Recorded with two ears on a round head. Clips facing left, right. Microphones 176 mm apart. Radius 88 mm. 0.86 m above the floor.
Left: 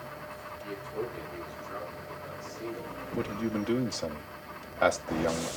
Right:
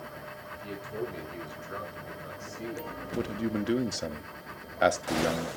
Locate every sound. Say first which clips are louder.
0.5 s a man speaking: left 2 dB; 50° right (ahead or behind), 7.5 m; by 2.9 s 40° right (ahead or behind), 9 m
3.1 s a man speaking: right 1 dB; 15° right (ahead or behind), 0.9 m